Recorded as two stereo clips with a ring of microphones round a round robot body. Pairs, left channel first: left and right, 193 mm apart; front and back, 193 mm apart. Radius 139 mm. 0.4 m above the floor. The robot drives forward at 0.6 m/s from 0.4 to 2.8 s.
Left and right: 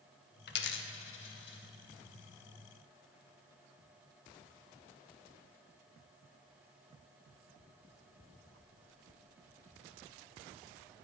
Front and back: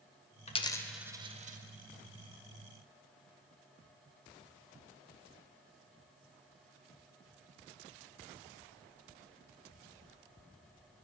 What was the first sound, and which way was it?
A dropped coin, 60° left.